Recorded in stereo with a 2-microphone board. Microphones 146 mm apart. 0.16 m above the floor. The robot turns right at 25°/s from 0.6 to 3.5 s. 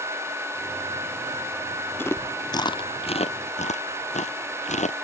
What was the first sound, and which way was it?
Chewing, 15° left (ahead or behind).